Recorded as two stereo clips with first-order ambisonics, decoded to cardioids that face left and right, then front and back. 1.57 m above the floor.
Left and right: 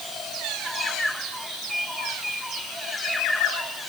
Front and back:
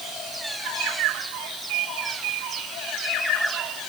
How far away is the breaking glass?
I don't hear breaking glass.